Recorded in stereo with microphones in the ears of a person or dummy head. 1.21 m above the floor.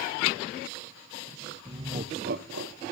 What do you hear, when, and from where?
1.6 s laughter: 15° right (ahead or behind), 1.1 m; by 2.8 s 70° right (ahead or behind), 1.1 m